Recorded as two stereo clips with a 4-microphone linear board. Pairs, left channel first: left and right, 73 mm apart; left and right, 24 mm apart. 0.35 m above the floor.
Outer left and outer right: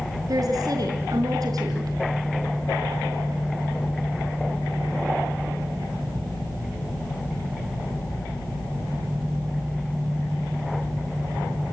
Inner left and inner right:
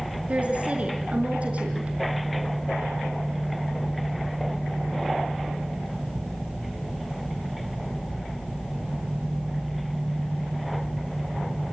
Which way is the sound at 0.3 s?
60° right (ahead or behind).